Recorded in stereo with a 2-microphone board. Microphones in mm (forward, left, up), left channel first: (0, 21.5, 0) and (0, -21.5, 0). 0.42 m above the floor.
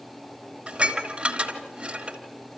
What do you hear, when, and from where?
0.7 s dishes clattering: 25° right (ahead or behind), 3 m